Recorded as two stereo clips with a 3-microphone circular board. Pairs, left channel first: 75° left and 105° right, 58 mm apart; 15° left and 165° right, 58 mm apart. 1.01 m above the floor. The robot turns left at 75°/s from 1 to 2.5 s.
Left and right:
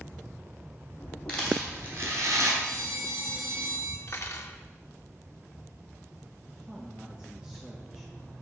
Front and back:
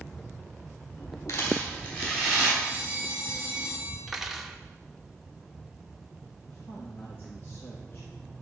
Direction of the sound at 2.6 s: 95° right.